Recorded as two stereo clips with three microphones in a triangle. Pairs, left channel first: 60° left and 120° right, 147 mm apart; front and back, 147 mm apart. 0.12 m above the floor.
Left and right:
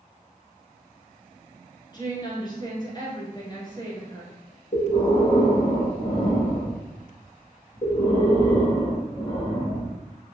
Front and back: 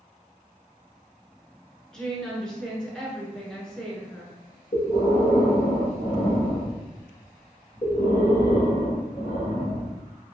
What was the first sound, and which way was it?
A woman speaking, 80° left.